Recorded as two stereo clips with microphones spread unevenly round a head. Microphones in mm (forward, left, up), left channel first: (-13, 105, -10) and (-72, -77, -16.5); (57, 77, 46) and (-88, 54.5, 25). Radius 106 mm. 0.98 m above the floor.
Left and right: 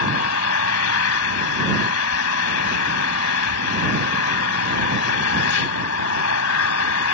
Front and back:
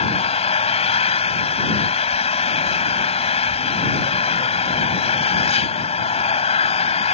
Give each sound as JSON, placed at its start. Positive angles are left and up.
{"t": 0.0, "sound": "an engine running", "azimuth_deg": 55}